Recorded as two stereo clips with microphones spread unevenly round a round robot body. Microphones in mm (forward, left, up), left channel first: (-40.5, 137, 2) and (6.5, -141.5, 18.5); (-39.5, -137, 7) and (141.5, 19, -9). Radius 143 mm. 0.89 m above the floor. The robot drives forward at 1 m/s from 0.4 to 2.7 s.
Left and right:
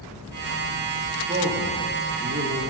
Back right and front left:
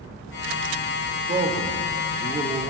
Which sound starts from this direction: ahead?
A man speaking, at 1.3 s.